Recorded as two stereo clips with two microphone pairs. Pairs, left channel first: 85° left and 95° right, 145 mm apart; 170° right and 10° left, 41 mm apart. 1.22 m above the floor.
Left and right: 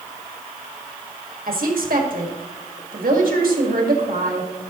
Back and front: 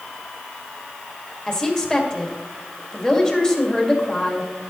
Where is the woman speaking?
100° right, 2.0 m.